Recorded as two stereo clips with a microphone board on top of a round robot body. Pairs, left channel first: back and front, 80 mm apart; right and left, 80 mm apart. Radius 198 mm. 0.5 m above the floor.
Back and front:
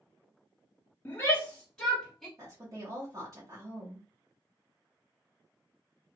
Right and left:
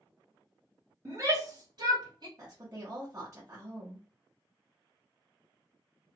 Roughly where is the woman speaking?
Ahead left.